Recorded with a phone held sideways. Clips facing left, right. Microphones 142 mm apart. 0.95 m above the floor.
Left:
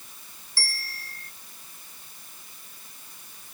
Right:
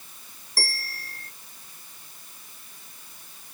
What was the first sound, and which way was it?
A bell, 40° right (ahead or behind).